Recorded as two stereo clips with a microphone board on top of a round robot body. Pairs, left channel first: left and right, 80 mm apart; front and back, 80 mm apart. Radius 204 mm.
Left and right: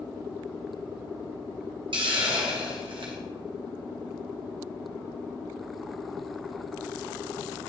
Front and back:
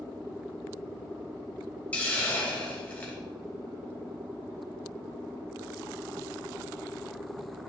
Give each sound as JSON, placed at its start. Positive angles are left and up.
{"t": 1.9, "sound": "a hiss", "azimuth_deg": -75, "distance_m": 1.2}